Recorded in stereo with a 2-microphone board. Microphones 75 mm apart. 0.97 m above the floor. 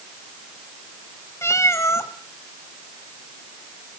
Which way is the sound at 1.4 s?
40° left (ahead or behind).